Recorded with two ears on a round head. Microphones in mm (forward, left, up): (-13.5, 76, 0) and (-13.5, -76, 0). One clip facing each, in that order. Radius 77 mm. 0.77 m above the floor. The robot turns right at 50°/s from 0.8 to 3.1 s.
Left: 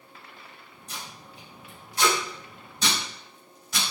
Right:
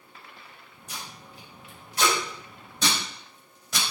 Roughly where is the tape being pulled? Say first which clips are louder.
Even; centre.